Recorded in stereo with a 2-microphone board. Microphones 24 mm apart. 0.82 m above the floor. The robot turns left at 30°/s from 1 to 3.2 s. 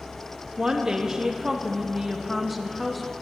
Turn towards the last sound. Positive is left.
turn(degrees=165)